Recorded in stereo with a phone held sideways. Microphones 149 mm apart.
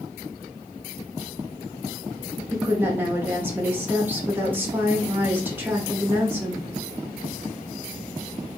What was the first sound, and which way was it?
A woman speaking, 15° right (ahead or behind).